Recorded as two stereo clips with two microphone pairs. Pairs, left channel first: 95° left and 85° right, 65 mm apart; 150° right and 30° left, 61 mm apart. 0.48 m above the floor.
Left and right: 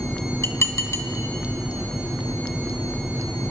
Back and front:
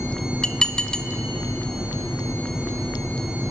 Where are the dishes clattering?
135° left, 1.0 m.